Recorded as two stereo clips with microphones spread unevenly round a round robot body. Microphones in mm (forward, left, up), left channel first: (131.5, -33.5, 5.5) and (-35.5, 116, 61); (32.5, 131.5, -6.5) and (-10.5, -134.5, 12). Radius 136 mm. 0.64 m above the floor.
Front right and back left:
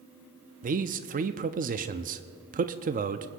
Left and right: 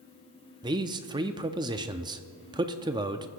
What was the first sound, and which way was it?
A man speaking, 170° right.